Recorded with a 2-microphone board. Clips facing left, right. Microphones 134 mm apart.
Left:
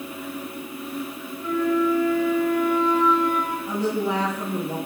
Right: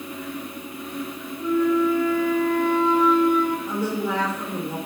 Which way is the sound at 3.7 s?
25° left (ahead or behind).